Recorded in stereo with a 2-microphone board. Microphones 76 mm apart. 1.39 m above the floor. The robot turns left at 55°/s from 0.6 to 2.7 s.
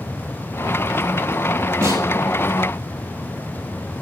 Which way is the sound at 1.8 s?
50° right (ahead or behind).